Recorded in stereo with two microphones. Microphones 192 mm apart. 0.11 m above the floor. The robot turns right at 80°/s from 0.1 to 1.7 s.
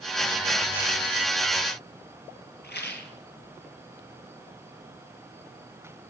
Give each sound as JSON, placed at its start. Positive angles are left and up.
{"t": 2.6, "sound": "a rattle", "side_deg": 60, "distance_m": 2.0}